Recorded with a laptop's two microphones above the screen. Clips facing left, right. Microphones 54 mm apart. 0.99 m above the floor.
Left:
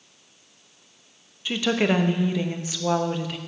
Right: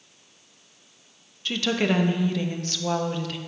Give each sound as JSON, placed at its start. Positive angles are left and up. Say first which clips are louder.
{"t": 1.4, "sound": "a woman speaking", "louder": "left 2 dB", "side_deg": 15, "distance_m": 0.8}